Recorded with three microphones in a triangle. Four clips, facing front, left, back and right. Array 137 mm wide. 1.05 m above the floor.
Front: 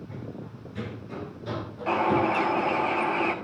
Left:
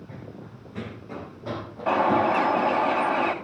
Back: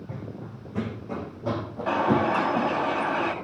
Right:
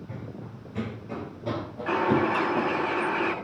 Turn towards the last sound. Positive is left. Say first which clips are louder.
# left 3 dB, back 1 dB
turn(degrees=100)